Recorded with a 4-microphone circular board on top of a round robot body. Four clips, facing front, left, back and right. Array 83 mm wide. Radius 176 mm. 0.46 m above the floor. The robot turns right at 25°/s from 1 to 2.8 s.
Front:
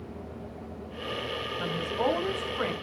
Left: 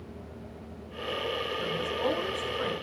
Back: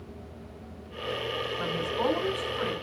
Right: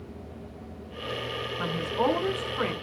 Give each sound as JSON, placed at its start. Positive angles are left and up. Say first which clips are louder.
{"t": 1.6, "sound": "a woman speaking", "louder": "right 6 dB, front 1 dB", "azimuth_deg": -105, "distance_m": 3.0}